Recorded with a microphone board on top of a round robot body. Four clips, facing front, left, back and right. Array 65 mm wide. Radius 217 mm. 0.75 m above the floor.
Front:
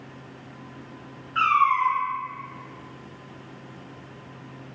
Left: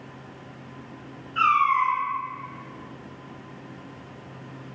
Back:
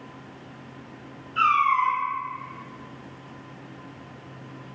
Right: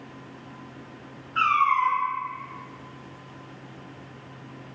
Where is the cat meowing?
15° right, 1.5 m.